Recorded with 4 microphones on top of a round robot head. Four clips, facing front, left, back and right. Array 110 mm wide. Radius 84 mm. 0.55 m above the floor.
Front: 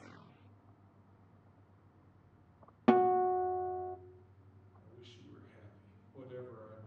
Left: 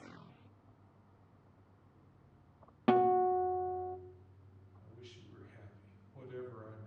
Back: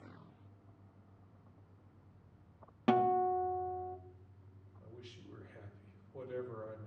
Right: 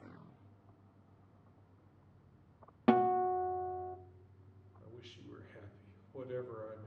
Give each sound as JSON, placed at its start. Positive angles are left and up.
{"t": 2.9, "sound": "a guitar", "azimuth_deg": -15, "distance_m": 0.7}
{"t": 4.8, "sound": "a man speaking", "azimuth_deg": -110, "distance_m": 2.0}